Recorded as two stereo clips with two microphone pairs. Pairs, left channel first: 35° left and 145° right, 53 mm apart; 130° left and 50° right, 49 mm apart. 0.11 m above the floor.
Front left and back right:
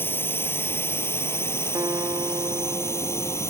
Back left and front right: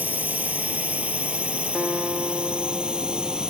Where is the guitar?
135° right.